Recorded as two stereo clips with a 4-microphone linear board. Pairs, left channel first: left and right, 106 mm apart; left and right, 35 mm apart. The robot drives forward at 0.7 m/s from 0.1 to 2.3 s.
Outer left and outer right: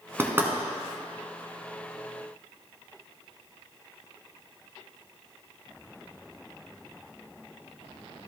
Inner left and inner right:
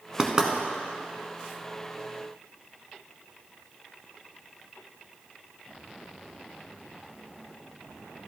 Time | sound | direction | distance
0.2 | knocking | 25° right (ahead or behind) | 1.0 m